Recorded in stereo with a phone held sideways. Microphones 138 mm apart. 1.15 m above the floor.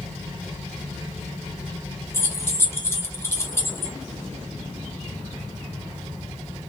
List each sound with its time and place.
2.1 s keys jangling: 20° left (ahead or behind), 0.6 m